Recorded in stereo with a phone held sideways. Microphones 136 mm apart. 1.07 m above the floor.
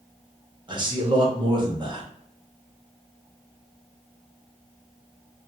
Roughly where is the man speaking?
Right.